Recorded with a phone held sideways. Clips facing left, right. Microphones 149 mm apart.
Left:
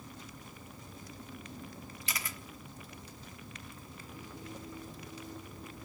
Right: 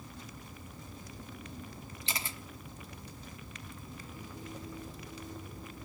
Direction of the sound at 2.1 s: 30° right (ahead or behind).